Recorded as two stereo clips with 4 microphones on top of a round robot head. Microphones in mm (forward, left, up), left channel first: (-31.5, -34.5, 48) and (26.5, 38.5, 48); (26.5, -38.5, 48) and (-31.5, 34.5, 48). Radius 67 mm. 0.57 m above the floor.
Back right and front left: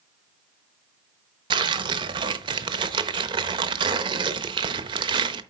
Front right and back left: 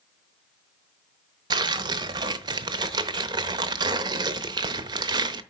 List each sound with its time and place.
1.5 s tearing paper: 85° left, 0.8 m